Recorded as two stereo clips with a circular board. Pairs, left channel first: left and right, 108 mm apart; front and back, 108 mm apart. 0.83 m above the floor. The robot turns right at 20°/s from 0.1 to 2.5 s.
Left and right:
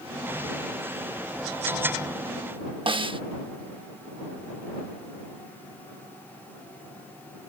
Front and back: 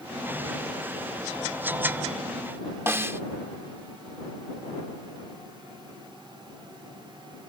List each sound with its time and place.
2.9 s a snare drum: 115° right